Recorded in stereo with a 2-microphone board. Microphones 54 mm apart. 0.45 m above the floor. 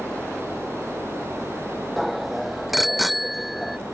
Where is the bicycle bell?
Centre (ahead or behind).